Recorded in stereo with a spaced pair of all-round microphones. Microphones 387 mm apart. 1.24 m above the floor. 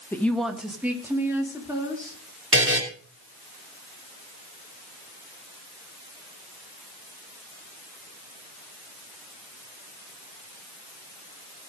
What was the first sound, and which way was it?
A woman speaking, 5° left (ahead or behind).